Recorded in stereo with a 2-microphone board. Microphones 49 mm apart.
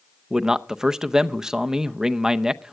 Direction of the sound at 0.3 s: 10° right (ahead or behind).